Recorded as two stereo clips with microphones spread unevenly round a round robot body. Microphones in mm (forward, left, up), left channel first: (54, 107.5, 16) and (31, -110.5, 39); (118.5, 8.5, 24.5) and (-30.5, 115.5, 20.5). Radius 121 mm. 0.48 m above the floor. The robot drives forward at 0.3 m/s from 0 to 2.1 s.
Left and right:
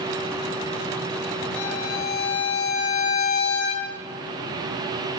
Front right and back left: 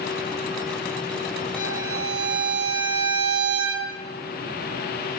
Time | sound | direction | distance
1.6 | a violin | 75° left | 6 m